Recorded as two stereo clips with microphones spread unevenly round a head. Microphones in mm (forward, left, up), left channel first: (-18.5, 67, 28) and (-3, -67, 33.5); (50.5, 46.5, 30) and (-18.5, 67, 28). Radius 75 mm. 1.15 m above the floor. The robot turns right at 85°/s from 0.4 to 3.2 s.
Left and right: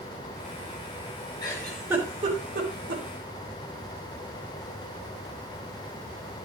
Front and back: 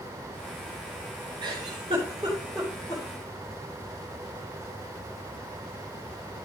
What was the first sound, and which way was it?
A giggle, 160° left.